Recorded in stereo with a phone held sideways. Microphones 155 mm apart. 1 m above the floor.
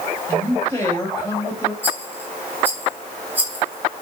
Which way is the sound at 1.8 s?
10° right (ahead or behind).